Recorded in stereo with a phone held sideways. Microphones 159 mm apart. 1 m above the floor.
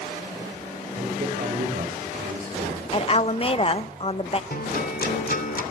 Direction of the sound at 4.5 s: 65° left (ahead or behind).